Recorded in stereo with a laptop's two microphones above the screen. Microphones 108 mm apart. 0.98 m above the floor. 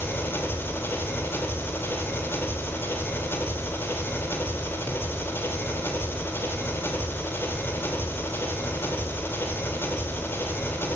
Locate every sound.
0.0 s an engine running: 20° left (ahead or behind), 3.5 m